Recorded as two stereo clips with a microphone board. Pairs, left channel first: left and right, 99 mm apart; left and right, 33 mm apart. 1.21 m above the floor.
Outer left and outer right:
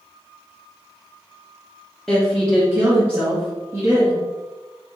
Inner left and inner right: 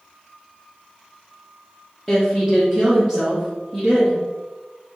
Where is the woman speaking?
5° left (ahead or behind), 1.0 m; by 4.2 s 30° right (ahead or behind), 1.8 m.